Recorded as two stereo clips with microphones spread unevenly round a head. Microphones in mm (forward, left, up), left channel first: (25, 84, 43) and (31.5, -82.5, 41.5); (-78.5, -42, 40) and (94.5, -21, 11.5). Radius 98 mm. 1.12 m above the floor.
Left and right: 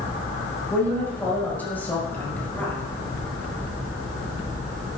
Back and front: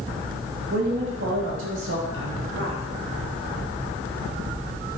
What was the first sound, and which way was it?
A woman speaking, 15° left.